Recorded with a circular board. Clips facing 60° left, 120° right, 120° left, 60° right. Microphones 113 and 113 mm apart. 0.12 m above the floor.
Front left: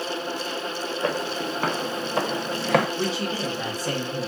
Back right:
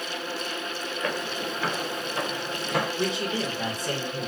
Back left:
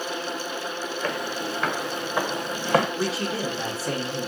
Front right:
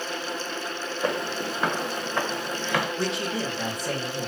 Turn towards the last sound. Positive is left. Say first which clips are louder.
# front left 1 dB, back left 1 dB
turn(degrees=35)